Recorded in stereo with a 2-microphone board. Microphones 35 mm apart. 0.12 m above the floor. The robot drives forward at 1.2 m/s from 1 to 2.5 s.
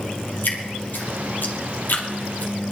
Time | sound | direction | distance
0.4 | dripping | 65° left (ahead or behind) | 3 m